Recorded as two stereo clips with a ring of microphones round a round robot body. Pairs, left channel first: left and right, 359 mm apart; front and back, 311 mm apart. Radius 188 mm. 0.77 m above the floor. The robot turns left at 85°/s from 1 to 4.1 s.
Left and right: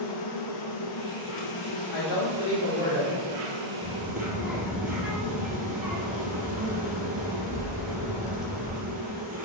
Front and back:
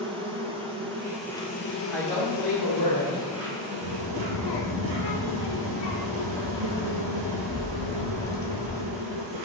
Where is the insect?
110° left, 1.4 m; by 9.5 s 155° right, 1.4 m.